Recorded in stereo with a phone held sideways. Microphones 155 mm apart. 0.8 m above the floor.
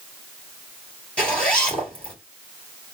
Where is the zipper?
5° left (ahead or behind), 2 m.